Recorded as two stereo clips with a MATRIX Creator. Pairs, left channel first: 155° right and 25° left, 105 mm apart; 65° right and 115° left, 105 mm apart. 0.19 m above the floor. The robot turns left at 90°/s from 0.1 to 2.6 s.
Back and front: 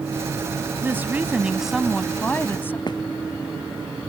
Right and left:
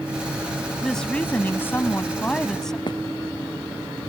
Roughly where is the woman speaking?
Ahead.